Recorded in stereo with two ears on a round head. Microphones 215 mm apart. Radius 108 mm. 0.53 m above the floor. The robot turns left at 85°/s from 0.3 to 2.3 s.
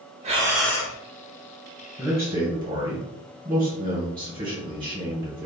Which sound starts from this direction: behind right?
Breathing, at 0.2 s.